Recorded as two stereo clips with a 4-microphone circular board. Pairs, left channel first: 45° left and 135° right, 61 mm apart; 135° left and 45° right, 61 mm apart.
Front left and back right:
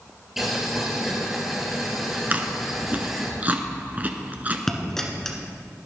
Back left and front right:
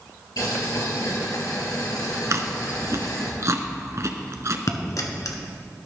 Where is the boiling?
140° left, 2.5 m.